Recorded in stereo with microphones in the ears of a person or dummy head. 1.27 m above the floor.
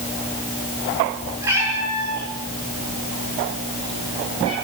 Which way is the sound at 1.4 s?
10° right (ahead or behind).